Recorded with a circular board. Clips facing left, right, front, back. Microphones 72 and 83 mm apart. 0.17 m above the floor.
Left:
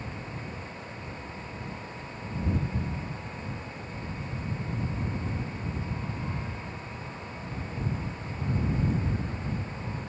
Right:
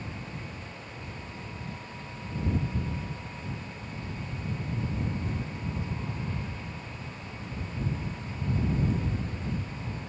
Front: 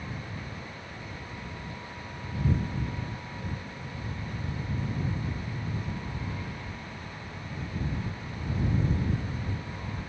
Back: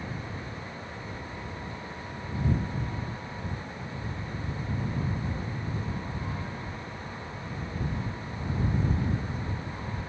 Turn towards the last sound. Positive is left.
No sound to turn to.